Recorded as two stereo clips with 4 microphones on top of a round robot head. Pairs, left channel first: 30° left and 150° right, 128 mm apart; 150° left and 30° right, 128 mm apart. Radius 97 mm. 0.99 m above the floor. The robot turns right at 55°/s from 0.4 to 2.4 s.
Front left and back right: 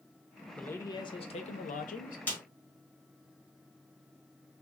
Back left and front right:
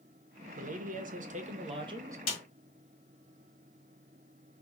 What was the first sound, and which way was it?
A man speaking, 50° right.